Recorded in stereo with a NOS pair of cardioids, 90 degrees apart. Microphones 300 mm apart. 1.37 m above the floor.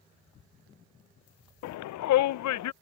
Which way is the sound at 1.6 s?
70° left.